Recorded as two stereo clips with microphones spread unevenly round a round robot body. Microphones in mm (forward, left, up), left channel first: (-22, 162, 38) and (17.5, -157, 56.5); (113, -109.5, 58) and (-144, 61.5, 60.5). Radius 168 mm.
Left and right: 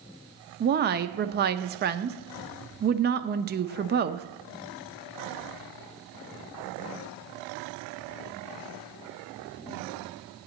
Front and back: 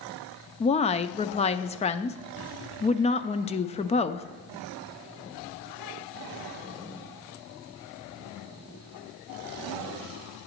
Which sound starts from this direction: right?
A woman speaking, at 0.6 s.